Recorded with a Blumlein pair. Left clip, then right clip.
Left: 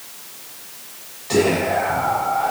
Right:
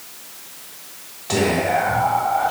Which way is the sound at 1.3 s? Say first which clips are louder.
Left 1 dB; 55° right.